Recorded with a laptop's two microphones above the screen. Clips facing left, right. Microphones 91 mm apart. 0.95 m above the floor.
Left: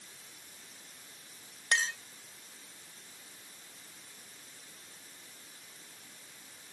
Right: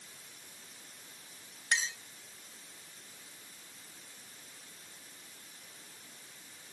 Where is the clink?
60° left (ahead or behind).